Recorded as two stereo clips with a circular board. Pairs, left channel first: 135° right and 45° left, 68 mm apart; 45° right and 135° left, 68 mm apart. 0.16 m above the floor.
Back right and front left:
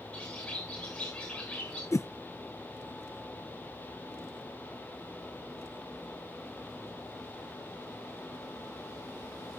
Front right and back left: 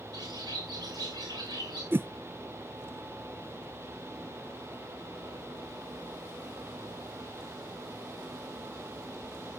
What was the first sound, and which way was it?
A bird, 150° left.